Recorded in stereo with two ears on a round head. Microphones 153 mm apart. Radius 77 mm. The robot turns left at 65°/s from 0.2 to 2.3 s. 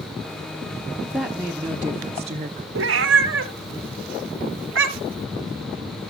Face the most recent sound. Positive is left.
turn(degrees=-85)